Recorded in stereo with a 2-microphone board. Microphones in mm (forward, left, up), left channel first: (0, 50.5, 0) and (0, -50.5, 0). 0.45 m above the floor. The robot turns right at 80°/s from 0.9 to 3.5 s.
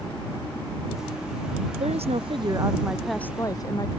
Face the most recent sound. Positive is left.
turn(degrees=40)